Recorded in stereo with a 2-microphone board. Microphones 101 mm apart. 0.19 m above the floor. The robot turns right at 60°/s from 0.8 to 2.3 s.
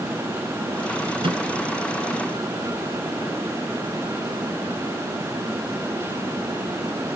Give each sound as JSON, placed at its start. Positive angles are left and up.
{"t": 1.2, "sound": "a microwave", "side_deg": -60}